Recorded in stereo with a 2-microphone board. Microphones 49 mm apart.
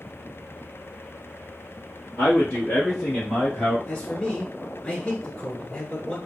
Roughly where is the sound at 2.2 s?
Left.